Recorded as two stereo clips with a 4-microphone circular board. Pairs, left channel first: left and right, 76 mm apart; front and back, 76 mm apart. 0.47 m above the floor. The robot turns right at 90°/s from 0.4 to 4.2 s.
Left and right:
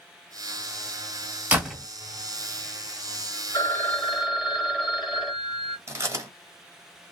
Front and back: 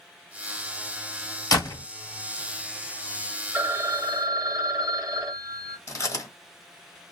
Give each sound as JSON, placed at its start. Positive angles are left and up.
{"t": 1.5, "sound": "a door slam", "azimuth_deg": -20, "distance_m": 1.7}
{"t": 3.5, "sound": "a phone ringing", "azimuth_deg": 125, "distance_m": 1.2}
{"t": 5.9, "sound": "chewing", "azimuth_deg": -40, "distance_m": 1.3}